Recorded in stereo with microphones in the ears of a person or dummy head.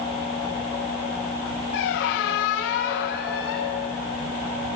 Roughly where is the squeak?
Left.